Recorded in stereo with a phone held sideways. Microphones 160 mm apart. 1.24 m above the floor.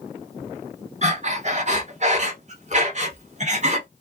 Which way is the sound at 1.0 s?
45° right (ahead or behind).